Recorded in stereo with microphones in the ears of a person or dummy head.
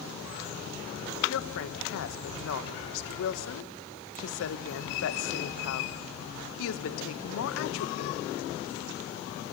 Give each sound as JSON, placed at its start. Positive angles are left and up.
{"t": 1.3, "sound": "a woman speaking", "side_deg": 80, "distance_m": 1.3}